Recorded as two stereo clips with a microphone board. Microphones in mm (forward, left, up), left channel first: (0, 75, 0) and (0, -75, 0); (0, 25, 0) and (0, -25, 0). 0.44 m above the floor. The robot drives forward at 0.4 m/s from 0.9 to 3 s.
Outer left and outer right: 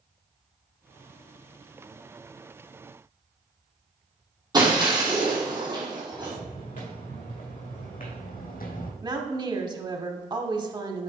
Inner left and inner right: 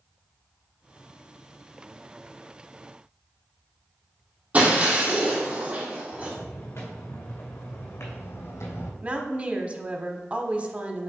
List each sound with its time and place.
4.5 s breaking glass: 25° right (ahead or behind), 3 m
6.1 s footsteps: 60° left (ahead or behind), 3 m; by 8.9 s 75° left (ahead or behind), 1.2 m
9.0 s a woman speaking: 30° right (ahead or behind), 0.9 m